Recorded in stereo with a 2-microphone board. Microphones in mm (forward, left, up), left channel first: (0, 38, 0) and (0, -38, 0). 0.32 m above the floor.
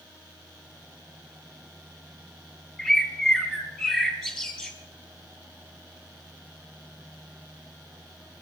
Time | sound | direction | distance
2.8 | a bird | 5° right (ahead or behind) | 3.5 m